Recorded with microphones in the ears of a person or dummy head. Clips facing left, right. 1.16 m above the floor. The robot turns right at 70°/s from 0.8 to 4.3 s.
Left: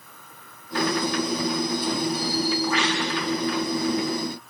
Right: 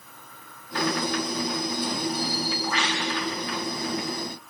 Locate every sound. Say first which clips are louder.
2.1 s a bird: left 4 dB; 175° left, 9 m; by 3.0 s 125° right, 9 m